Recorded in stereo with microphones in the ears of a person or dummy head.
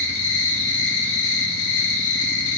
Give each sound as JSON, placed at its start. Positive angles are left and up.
{"t": 0.0, "sound": "an insect", "side_deg": 75, "distance_m": 2.0}